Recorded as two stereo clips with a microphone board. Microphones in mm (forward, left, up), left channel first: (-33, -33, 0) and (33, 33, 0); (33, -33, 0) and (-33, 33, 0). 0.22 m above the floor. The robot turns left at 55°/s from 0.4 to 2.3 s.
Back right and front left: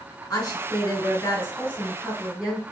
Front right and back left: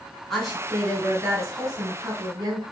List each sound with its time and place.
0.3 s a woman speaking: 130° right, 1.9 m; by 2.6 s 125° left, 1.9 m